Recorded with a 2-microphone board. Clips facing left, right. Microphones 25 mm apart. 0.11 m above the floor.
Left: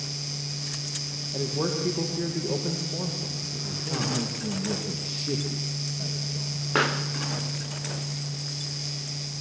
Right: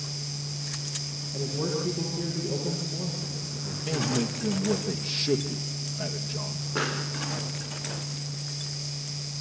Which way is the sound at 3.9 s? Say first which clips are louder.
Right 2 dB; 40° right (ahead or behind).